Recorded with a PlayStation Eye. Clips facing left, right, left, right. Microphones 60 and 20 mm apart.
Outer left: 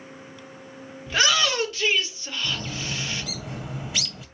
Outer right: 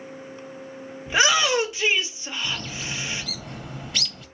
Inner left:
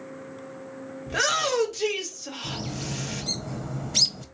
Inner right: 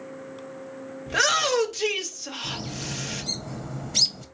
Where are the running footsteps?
I don't hear running footsteps.